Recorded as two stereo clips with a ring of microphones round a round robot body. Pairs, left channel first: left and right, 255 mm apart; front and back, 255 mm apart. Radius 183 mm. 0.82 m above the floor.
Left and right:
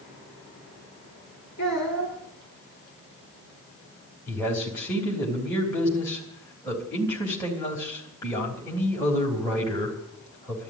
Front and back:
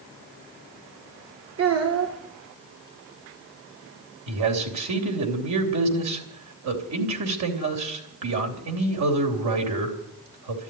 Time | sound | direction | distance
1.6 | a child speaking | 150° left | 1.8 m
4.3 | a man speaking | 175° left | 3 m